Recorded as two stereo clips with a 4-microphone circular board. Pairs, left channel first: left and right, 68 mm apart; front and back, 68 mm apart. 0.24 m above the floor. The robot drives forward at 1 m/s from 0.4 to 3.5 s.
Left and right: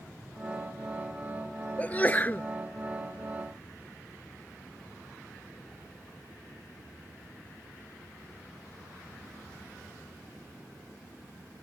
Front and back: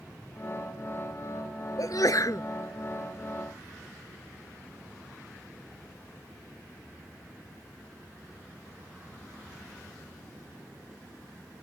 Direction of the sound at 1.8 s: 25° left.